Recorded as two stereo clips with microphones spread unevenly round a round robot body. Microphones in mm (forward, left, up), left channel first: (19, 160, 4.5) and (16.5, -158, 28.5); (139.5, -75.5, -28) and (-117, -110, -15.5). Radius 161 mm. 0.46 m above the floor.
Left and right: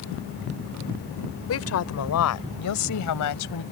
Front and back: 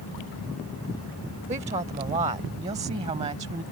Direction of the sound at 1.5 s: 120° left.